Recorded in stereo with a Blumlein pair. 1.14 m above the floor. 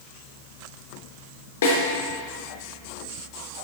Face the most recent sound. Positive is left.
turn(degrees=55)